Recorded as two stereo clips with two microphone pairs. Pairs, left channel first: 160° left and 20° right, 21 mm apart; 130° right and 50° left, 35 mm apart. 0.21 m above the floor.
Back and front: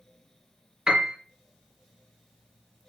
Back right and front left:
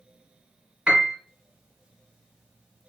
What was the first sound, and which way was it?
A piano, 5° right.